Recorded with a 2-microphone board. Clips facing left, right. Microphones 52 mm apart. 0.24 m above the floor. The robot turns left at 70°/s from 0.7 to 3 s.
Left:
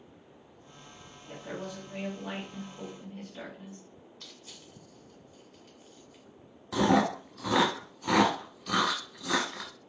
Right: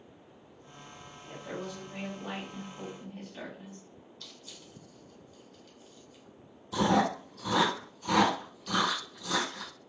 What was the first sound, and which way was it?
A woman speaking, 60° left.